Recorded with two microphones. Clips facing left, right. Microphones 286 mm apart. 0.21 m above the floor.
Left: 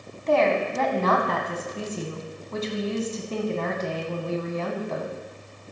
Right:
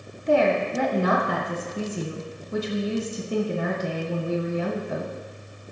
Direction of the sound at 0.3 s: 15° right (ahead or behind).